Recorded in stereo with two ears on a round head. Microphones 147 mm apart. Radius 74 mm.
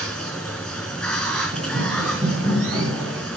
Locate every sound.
0.0 s running water: centre (ahead or behind), 4 m
1.5 s running footsteps: 55° right (ahead or behind), 2 m; by 3.3 s 30° right (ahead or behind), 3.5 m